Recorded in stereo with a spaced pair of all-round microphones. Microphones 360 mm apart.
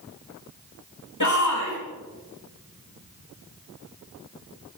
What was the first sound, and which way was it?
A shout, 55° left (ahead or behind).